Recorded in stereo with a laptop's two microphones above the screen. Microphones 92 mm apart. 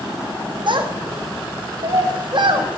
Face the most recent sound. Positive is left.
turn(degrees=-55)  # may be behind; listen again after turning